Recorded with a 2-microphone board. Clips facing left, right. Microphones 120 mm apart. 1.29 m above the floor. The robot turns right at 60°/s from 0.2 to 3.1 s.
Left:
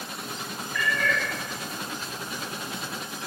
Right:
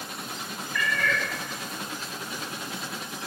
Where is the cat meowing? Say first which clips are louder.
Left 1 dB; 10° left (ahead or behind), 3 m; by 1.2 s 35° left (ahead or behind), 3 m.